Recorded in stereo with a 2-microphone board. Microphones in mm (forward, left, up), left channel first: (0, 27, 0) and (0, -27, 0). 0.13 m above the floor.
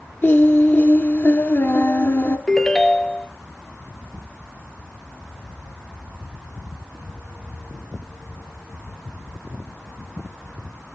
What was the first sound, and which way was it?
Singing, 45° left (ahead or behind).